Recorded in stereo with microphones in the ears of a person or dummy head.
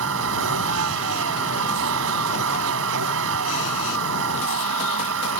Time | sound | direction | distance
0.0 | a vehicle | 75° right (ahead or behind) | ?